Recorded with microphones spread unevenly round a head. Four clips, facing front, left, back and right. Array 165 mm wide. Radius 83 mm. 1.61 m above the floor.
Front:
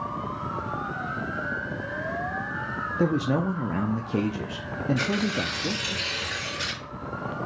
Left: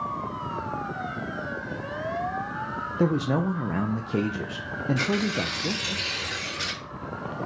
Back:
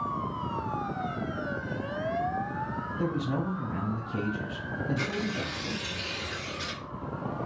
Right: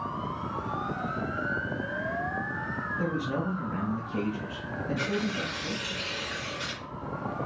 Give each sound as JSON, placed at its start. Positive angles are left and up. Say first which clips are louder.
{"t": 3.0, "sound": "a man speaking", "louder": "left 7 dB, front 7 dB", "azimuth_deg": 50, "distance_m": 0.5}
{"t": 5.0, "sound": "tearing paper", "louder": "left 3 dB, front 5 dB", "azimuth_deg": 60, "distance_m": 2.5}